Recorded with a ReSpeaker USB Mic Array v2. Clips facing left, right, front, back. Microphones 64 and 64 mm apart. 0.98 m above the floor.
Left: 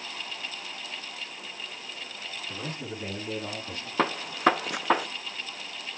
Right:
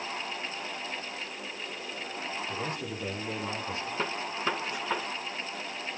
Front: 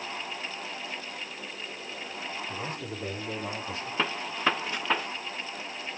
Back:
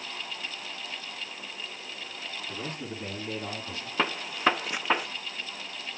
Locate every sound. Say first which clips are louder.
2.5 s a man speaking: right 2 dB, front 1 dB; 140° left, 8.5 m; by 3.9 s 130° left, 7.5 m
4.0 s a gunshot: left 10 dB, back 2 dB; 105° left, 0.7 m